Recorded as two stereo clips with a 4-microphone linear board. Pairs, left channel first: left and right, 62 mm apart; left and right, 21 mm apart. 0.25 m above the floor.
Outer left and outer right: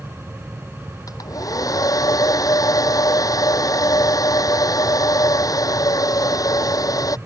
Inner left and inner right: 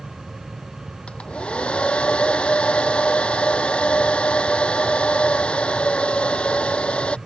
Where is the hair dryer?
70° left (ahead or behind).